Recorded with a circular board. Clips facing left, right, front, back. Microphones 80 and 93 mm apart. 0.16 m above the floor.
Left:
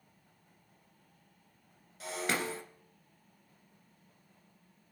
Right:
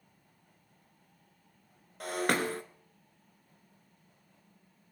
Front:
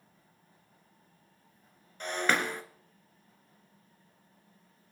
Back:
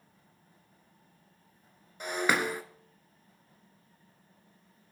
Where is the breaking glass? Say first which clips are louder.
Right 5 dB, back 1 dB; 100° right, 1.4 m.